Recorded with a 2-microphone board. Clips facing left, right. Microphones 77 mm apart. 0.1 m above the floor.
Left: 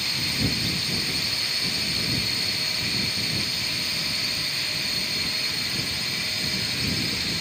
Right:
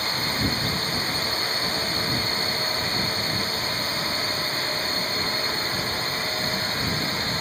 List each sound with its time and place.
0.0 s a drone: 40° right (ahead or behind)